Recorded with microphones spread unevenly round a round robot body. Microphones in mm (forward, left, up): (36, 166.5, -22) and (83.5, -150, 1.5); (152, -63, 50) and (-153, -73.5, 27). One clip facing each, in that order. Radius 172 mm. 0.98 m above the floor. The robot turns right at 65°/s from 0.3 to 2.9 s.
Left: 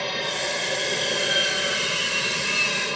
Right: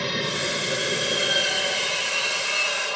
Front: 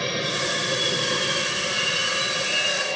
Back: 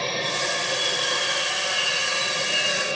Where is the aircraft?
50° right; by 3.0 s 110° left.